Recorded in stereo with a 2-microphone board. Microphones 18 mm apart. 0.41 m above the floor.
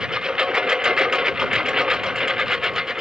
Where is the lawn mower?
55° right (ahead or behind); by 3.0 s 40° right (ahead or behind).